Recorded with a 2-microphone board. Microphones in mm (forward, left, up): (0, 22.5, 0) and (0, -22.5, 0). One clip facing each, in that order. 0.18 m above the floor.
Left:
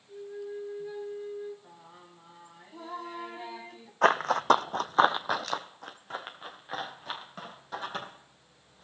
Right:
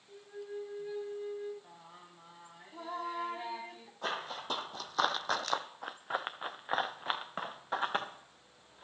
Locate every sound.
0.1 s a flute: 15° right (ahead or behind), 2.5 m
1.6 s singing: 5° right (ahead or behind), 0.9 m
4.0 s running footsteps: 80° left, 0.7 m; by 8.8 s 35° right (ahead or behind), 2.5 m